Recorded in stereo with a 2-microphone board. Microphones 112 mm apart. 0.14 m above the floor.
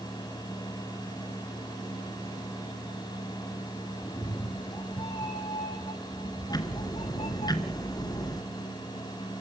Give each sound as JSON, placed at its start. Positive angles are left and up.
{"t": 4.0, "sound": "a cat meowing", "side_deg": 30, "distance_m": 1.5}
{"t": 6.5, "sound": "ticking", "side_deg": 35, "distance_m": 2.0}